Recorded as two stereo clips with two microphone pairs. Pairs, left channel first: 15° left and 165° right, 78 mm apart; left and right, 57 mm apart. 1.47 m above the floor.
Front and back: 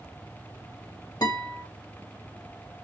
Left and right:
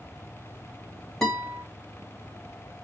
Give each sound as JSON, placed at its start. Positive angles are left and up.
{"t": 1.2, "sound": "a guitar", "azimuth_deg": 5, "distance_m": 2.0}